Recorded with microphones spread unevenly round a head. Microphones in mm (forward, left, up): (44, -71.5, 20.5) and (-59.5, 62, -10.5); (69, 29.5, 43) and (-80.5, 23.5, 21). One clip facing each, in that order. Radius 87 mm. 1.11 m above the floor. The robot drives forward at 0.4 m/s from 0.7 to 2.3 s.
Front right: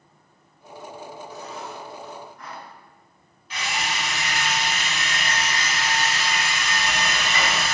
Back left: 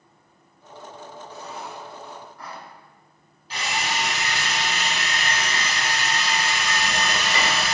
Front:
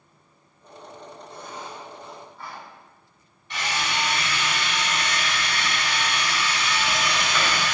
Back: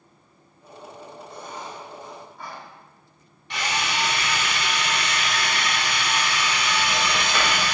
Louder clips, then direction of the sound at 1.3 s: Back left 2 dB, back 1 dB; 175° right.